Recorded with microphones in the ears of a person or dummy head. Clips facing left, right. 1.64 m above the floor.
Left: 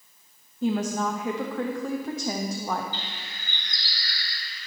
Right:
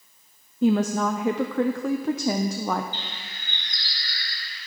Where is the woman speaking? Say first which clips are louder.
Right 5 dB; 60° right (ahead or behind), 0.6 m.